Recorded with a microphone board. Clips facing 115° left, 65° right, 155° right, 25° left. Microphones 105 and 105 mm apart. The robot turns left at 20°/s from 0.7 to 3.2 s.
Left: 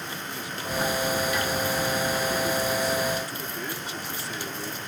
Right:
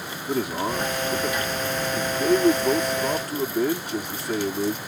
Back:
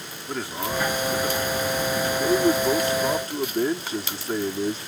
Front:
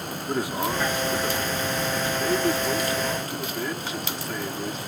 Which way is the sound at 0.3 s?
50° right.